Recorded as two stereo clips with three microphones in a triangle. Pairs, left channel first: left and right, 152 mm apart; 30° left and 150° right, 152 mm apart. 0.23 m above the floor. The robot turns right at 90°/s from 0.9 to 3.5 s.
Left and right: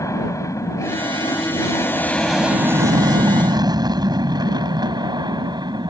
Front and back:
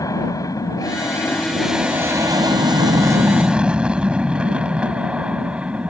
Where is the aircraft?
55° left; by 5.9 s 75° right.